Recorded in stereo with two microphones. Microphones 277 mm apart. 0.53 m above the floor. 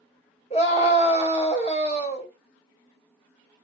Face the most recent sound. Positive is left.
turn(degrees=20)  # may be behind; listen again after turning